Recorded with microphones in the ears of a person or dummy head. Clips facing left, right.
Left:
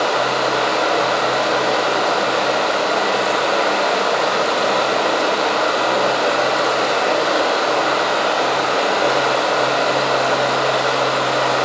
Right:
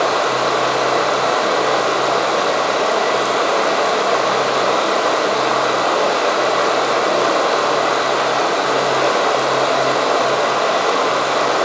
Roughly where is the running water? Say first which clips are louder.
Right 1 dB; right.